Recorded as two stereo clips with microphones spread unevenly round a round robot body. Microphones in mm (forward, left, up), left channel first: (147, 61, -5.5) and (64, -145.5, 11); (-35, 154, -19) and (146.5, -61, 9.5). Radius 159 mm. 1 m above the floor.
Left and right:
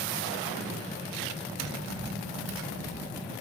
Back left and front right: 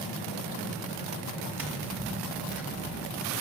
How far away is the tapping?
About 1.7 m.